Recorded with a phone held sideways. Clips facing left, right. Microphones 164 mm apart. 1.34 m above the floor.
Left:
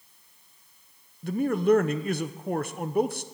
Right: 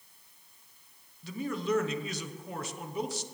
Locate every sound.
1.2 s a man speaking: 60° left (ahead or behind), 0.8 m